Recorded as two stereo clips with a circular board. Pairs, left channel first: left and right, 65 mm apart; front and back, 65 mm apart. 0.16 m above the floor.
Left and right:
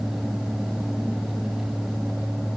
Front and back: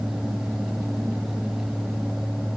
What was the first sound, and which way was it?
Only background noise.